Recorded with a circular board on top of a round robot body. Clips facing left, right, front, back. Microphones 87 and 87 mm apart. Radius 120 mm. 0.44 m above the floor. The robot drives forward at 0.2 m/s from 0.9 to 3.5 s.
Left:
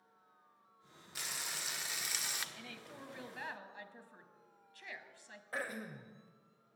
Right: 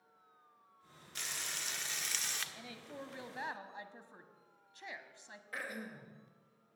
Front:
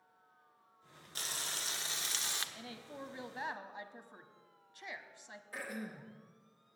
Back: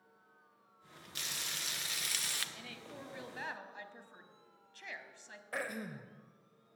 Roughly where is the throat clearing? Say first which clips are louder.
Left 2 dB, back 3 dB; behind left.